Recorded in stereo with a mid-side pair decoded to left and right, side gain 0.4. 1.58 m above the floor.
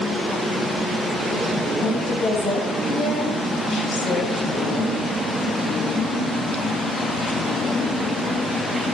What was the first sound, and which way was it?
A woman speaking, 65° left.